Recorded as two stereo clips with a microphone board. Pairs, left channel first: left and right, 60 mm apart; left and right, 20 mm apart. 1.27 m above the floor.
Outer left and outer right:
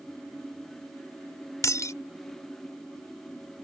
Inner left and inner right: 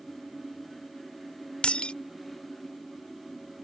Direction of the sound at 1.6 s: 65° left (ahead or behind).